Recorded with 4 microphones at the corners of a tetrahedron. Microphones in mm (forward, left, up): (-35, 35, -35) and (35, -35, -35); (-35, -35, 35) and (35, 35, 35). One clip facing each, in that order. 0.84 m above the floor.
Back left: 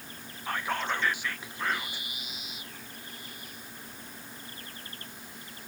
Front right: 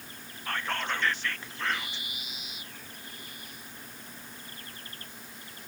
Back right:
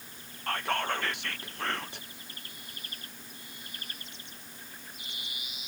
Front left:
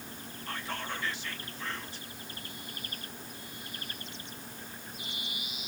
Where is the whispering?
150° right, 0.6 m.